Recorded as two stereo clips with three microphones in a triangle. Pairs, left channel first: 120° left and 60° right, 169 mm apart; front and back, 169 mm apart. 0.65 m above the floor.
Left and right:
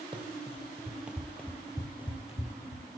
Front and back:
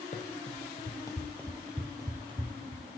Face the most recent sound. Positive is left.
turn(degrees=145)